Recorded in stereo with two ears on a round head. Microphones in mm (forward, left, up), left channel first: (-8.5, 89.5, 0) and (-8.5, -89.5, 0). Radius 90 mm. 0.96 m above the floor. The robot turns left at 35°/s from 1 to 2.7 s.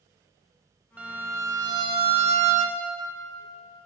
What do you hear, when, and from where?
1.0 s a violin: 10° right, 0.7 m; by 2.8 s 70° right, 0.7 m